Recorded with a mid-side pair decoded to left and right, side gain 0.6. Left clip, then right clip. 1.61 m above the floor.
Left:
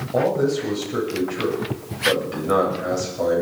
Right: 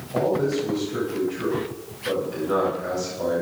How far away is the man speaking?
About 9 m.